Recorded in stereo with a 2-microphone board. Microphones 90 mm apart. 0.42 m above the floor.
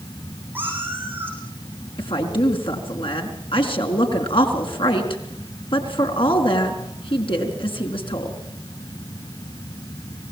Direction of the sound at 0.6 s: 20° right (ahead or behind).